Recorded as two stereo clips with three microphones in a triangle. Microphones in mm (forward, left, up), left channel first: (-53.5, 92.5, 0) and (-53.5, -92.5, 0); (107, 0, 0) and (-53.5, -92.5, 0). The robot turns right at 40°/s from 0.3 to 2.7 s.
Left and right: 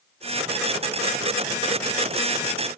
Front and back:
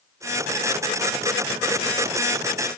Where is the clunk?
No clunk in this recording.